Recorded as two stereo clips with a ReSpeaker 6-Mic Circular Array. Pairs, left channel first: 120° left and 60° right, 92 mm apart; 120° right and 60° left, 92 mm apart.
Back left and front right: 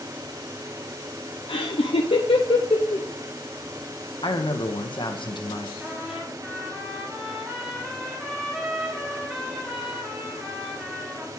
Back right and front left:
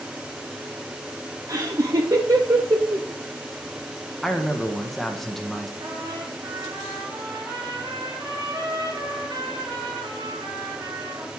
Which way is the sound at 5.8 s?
20° left.